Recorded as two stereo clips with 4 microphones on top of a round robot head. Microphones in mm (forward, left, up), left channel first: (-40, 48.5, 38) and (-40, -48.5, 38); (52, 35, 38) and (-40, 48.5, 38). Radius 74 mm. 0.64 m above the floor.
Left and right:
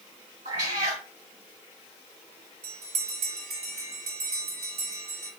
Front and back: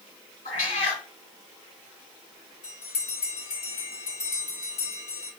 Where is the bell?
55° right, 1.7 m.